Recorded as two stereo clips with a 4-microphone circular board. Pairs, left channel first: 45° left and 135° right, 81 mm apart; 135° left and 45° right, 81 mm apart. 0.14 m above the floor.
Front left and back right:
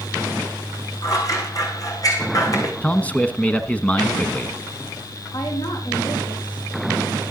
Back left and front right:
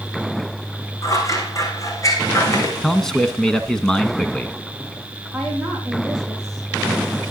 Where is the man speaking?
70° left, 1.0 m.